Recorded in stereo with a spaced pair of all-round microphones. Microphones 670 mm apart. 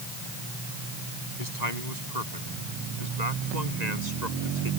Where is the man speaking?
75° right (ahead or behind); by 4.7 s 80° right.